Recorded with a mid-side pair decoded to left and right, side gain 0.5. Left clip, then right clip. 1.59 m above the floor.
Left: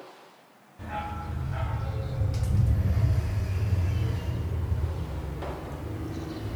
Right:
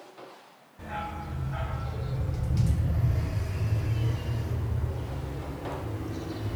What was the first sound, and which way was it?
A dog barking, straight ahead.